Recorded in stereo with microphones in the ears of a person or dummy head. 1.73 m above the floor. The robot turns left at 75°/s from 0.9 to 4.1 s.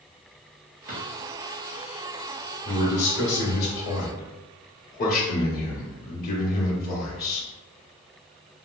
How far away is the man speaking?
About 1.0 m.